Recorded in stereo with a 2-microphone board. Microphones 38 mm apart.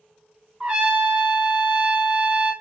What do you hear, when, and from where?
0.6 s a trumpet: 35° right (ahead or behind), 2 m